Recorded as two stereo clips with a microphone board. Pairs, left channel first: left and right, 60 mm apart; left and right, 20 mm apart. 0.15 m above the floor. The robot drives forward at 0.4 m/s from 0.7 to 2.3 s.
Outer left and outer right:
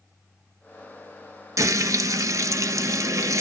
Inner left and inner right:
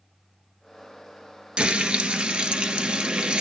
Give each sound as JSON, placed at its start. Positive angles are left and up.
{"t": 1.6, "sound": "frying", "side_deg": -60, "distance_m": 0.5}